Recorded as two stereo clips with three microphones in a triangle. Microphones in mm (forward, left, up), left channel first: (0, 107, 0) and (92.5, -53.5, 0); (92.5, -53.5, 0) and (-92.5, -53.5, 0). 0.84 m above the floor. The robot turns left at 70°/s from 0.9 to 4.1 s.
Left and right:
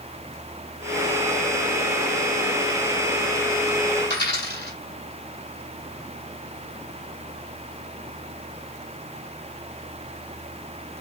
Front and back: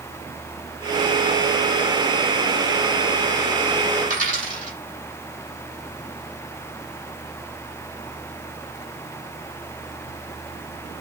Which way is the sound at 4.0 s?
145° left.